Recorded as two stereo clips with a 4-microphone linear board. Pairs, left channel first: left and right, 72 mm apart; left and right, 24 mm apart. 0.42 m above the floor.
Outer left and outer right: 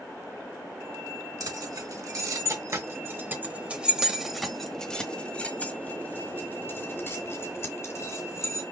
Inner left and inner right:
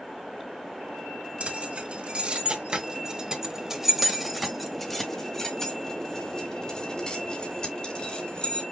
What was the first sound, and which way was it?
Keys jangling, 65° right (ahead or behind).